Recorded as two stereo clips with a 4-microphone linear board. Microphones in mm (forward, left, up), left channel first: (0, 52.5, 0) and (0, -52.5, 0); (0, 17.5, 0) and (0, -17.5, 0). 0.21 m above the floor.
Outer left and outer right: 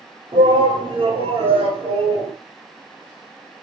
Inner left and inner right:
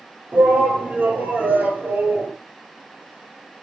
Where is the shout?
55° right (ahead or behind), 5 m; by 2.3 s 70° right (ahead or behind), 4.5 m.